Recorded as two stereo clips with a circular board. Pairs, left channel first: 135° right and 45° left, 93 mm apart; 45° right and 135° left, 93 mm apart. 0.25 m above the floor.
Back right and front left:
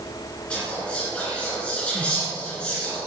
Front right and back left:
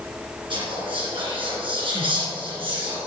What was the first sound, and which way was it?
Whispering, 150° left.